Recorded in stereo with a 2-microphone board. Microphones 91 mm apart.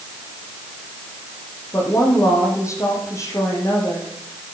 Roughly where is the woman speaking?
Left.